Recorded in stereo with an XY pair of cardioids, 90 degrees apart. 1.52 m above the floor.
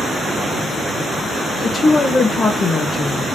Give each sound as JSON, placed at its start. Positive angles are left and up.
{"t": 1.6, "sound": "a woman speaking", "azimuth_deg": 50, "distance_m": 1.1}